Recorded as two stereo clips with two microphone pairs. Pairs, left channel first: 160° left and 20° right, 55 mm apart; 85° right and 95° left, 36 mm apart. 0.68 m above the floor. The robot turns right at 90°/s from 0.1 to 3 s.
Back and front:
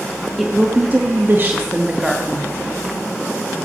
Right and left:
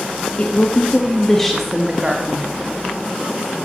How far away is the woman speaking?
About 1.0 m.